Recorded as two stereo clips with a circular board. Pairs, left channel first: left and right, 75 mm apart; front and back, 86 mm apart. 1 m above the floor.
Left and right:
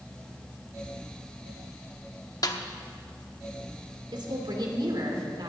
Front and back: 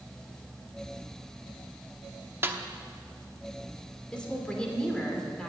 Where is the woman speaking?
80° right, 2.5 m.